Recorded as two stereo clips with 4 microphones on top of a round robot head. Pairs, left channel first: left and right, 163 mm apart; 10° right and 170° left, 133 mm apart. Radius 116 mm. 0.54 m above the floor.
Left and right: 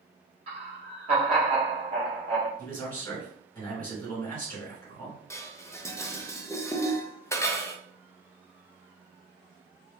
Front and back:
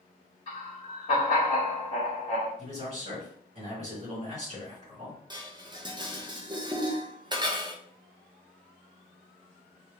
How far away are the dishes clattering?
About 0.6 m.